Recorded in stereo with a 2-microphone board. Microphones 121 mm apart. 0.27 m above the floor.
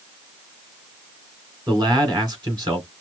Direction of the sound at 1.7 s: 35° right (ahead or behind).